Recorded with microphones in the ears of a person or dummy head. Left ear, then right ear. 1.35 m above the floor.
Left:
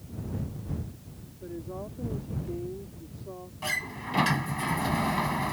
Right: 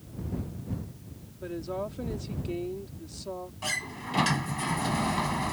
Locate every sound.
1.4 s a woman speaking: 60° right (ahead or behind)
3.6 s a sliding door: 5° left (ahead or behind)